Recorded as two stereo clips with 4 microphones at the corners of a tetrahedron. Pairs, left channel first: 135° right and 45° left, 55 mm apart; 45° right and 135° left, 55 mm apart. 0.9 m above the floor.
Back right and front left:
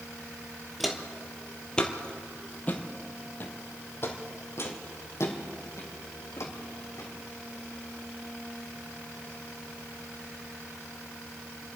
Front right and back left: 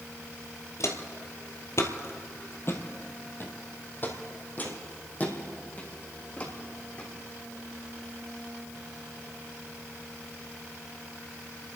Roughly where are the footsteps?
Ahead right.